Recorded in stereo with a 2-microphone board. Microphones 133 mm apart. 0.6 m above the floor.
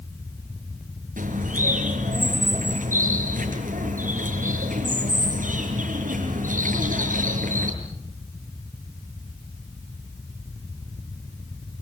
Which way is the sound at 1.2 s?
85° right.